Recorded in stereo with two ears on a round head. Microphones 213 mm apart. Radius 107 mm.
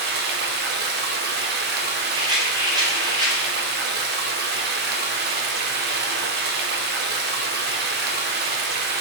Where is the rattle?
15° right (ahead or behind), 1.2 m.